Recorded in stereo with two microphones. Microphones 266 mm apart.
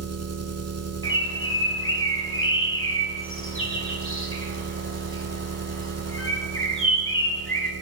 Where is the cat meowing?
I don't hear a cat meowing.